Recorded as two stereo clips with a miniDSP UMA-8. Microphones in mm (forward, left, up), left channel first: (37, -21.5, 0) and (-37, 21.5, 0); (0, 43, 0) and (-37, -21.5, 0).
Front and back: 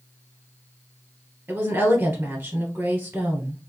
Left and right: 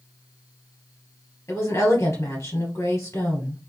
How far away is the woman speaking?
About 2.5 m.